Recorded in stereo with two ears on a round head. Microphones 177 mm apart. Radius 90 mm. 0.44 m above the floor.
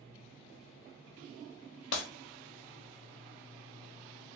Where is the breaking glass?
65° left (ahead or behind), 0.8 m.